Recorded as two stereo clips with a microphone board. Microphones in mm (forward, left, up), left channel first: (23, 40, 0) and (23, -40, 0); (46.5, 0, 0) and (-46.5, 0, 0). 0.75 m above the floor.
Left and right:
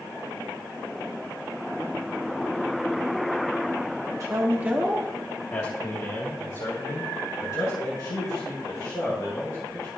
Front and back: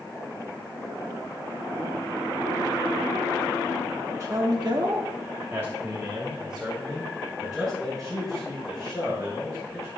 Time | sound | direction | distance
4.2 | a man speaking | 130° right | 1.2 m